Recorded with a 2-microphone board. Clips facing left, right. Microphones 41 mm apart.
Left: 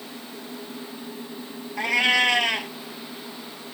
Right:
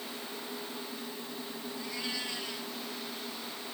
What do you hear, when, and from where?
1.8 s a cat meowing: 65° left (ahead or behind)